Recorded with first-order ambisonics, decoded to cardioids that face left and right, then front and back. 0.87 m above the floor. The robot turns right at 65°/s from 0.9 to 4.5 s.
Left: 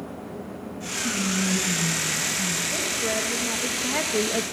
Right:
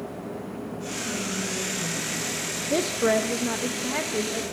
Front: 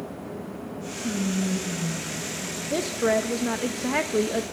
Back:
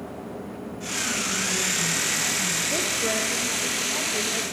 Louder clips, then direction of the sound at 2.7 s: Right 3 dB, front 1 dB; 75° right.